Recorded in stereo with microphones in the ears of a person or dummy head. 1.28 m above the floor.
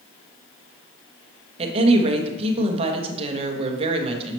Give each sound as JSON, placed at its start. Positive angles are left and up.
{"t": 1.6, "sound": "a woman speaking", "side_deg": -35, "distance_m": 1.0}